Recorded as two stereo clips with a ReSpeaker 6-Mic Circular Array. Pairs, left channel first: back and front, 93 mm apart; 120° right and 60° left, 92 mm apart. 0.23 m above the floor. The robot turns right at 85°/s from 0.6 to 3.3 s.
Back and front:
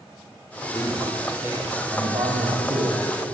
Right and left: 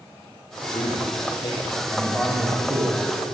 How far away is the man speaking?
About 10 m.